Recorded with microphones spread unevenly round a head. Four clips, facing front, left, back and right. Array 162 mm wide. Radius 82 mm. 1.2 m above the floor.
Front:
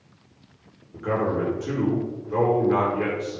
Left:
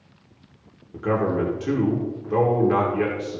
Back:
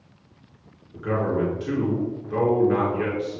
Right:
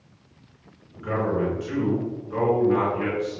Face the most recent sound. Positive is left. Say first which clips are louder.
# left 3 dB, even
turn(degrees=85)